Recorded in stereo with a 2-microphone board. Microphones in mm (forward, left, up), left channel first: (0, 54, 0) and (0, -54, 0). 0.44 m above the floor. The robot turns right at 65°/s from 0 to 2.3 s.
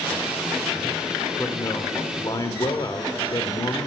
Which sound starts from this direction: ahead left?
A man speaking, at 1.4 s.